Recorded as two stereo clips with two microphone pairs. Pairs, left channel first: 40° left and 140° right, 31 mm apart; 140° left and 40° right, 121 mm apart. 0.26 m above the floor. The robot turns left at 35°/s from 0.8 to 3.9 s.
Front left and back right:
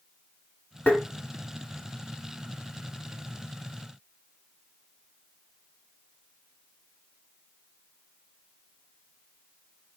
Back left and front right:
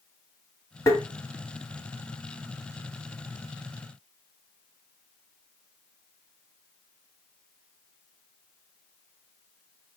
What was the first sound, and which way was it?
Tapping, 75° left.